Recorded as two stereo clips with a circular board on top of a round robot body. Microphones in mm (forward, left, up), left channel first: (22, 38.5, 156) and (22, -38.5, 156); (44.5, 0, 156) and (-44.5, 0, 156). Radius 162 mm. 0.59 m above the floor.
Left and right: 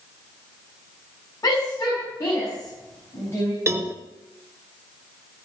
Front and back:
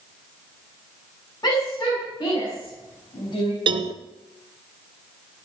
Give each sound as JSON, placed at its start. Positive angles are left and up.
{"t": 1.4, "sound": "a shout", "azimuth_deg": 50, "distance_m": 7.0}
{"t": 3.7, "sound": "a cowbell", "azimuth_deg": -150, "distance_m": 0.7}